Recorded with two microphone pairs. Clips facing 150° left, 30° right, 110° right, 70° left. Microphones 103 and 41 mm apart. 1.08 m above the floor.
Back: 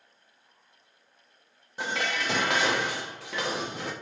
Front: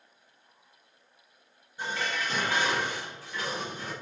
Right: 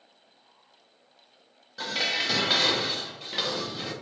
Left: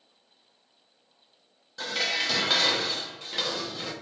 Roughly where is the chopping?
I don't hear chopping.